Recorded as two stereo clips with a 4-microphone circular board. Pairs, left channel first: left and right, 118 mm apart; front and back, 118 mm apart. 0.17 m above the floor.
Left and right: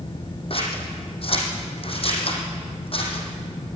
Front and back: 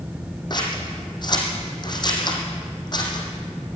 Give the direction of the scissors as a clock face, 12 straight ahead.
10 o'clock.